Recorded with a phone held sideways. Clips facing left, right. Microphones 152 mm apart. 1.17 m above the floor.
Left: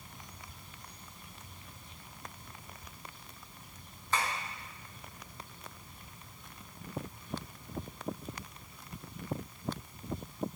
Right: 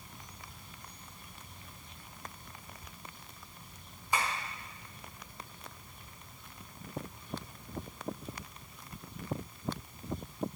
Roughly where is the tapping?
Centre.